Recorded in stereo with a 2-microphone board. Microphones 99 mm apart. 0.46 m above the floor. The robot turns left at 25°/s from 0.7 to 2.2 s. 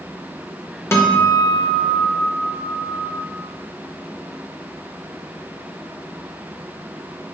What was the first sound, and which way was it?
A guitar, 145° left.